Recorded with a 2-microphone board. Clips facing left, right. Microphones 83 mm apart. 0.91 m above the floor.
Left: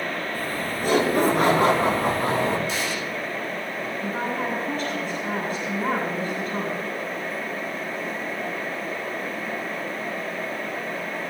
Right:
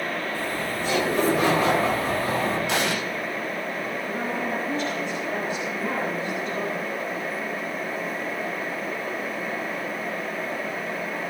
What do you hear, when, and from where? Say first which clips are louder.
0.3 s laughter: even; 50° left (ahead or behind), 8 m; by 2.6 s 70° left (ahead or behind), 7.5 m
2.7 s an explosion: right 3 dB; 75° right (ahead or behind), 1.7 m
4.0 s a woman speaking: left 3 dB; 50° left (ahead or behind), 8 m